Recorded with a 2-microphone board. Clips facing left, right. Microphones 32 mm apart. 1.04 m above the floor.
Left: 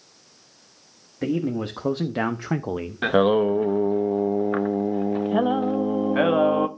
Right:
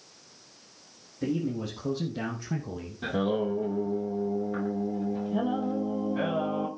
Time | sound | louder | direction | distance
1.2 | a man speaking | left 5 dB | 50° left (ahead or behind) | 1.4 m
3.0 | singing | left 9 dB | 65° left (ahead or behind) | 1.0 m